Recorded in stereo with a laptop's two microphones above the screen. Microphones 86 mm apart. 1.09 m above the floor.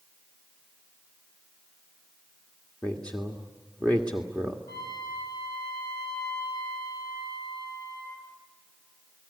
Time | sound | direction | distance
2.8 | a woman speaking | 15° left (ahead or behind) | 1.8 m
4.7 | a trumpet | 45° left (ahead or behind) | 8.5 m